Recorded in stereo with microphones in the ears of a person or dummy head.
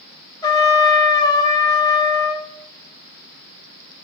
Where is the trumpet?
20° left (ahead or behind), 1.0 m.